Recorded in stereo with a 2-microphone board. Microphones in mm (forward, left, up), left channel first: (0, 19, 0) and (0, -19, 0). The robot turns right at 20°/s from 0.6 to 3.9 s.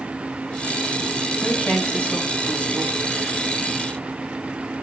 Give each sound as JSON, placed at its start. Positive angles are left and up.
{"t": 1.4, "sound": "a woman speaking", "azimuth_deg": 45, "distance_m": 9.5}